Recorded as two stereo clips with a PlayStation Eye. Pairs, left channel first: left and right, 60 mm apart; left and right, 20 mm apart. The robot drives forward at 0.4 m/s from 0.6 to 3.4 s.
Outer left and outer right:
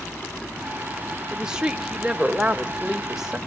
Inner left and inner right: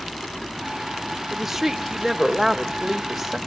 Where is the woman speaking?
15° right (ahead or behind), 1.3 m; by 3.4 s 10° right (ahead or behind), 1.9 m.